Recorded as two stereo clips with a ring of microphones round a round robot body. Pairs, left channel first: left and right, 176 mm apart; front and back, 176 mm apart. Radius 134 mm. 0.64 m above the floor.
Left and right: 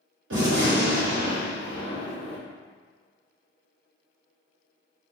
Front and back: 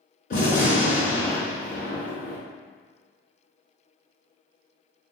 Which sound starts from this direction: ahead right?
A gunshot, at 0.3 s.